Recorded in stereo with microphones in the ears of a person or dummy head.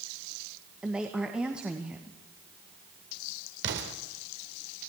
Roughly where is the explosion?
Right.